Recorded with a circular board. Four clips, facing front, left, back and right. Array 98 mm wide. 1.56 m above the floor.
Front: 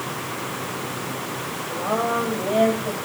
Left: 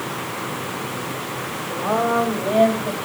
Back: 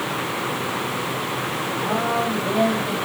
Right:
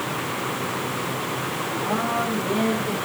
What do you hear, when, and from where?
1.7 s a woman speaking: 85° left, 7 m; by 3.0 s 80° left, 8 m